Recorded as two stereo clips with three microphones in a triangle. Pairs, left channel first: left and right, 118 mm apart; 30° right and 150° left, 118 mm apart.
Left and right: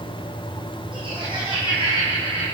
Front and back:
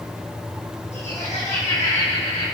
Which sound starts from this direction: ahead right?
Laughter, at 0.9 s.